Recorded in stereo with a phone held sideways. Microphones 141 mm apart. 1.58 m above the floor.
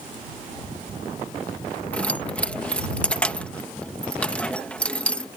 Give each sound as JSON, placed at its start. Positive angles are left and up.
{"t": 1.9, "sound": "keys jangling", "side_deg": 10}